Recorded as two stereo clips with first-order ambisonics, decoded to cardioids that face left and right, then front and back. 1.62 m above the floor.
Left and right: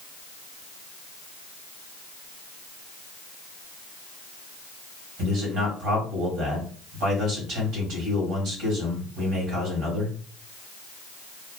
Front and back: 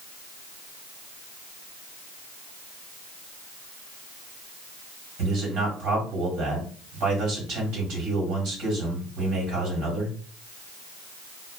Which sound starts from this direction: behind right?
A man speaking, at 5.2 s.